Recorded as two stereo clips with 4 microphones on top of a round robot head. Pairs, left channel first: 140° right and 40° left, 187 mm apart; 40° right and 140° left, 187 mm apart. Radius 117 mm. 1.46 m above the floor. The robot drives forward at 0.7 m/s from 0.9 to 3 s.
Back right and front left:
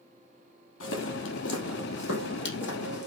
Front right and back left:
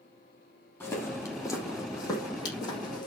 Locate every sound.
0.8 s footsteps: 120° right, 3.5 m; by 3.1 s 110° right, 4.5 m